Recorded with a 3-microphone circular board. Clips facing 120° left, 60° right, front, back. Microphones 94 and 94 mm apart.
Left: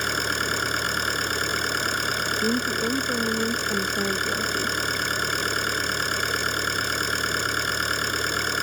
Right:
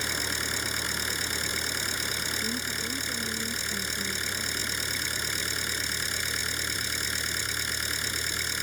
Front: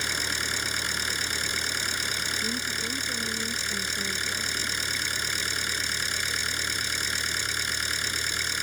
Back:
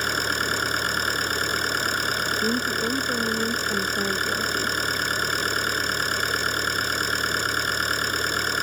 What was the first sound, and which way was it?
An engine running, 145° left.